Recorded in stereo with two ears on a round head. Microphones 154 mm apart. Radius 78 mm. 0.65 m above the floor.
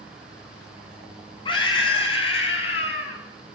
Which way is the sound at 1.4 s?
30° left (ahead or behind).